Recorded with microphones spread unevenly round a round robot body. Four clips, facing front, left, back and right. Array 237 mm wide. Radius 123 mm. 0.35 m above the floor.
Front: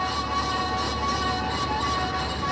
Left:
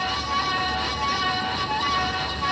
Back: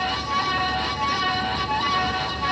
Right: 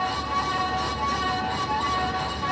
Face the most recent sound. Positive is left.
No sound to turn to.